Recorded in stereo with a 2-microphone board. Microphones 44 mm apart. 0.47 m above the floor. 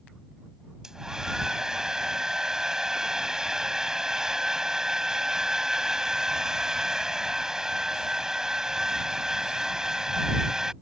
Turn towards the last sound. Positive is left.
turn(degrees=-15)  # may be behind; listen again after turning